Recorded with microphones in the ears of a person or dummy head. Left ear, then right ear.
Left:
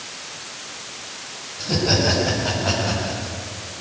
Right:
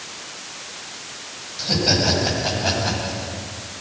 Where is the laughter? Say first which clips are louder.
Right 1 dB; 35° right (ahead or behind), 6 m; by 3.3 s 30° right (ahead or behind), 7 m.